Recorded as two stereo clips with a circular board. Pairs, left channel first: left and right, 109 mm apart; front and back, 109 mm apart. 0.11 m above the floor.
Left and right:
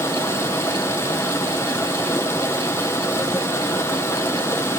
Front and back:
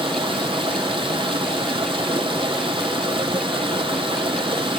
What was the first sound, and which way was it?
Running water, 155° left.